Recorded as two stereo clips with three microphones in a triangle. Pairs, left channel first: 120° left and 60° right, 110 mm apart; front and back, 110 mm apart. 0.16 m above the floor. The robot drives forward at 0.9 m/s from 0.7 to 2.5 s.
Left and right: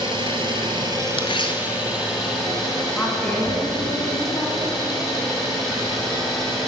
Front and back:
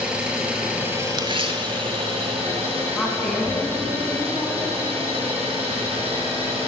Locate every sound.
0.0 s an engine running: 100° right, 1.0 m; by 6.7 s 150° right, 2 m
1.2 s tearing paper: 145° left, 0.5 m; by 1.6 s 160° left, 0.9 m
2.9 s a woman speaking: 80° left, 1.3 m